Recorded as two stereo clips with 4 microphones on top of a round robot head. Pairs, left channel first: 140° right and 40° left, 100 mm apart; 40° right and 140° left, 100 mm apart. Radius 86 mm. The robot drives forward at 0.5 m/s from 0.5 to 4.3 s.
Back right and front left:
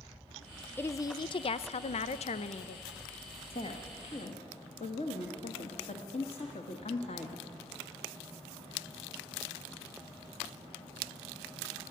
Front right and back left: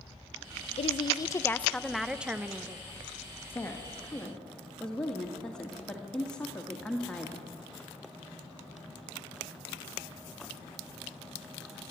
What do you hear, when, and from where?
0.8 s a woman speaking: 70° right, 0.5 m; by 2.9 s 150° right, 1.0 m
3.5 s a woman speaking: 110° right, 1.6 m; by 7.5 s 125° right, 1.7 m